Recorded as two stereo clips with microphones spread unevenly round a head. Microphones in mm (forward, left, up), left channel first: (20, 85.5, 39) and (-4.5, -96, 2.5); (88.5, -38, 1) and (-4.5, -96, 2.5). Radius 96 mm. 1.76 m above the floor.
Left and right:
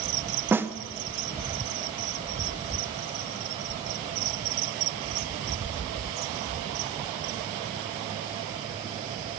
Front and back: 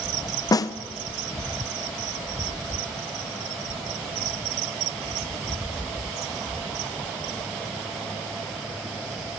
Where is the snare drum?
10° right, 0.9 m.